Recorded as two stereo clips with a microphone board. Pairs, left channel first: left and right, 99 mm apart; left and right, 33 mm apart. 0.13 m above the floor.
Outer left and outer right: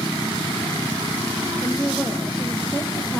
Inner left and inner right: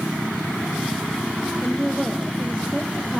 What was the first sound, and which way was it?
A woman speaking, 10° left (ahead or behind).